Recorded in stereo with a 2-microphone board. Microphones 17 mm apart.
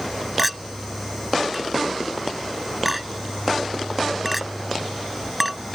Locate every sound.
0.4 s a clink: 5° right (ahead or behind)